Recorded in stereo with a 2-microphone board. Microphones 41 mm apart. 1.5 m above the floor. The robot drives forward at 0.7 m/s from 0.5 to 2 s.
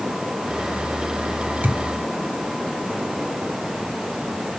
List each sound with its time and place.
1.6 s a thud: 40° right (ahead or behind), 4 m; by 1.8 s 35° right (ahead or behind), 4 m